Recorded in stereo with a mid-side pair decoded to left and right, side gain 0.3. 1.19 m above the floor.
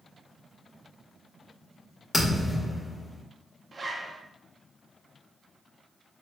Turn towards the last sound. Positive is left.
turn(degrees=-50)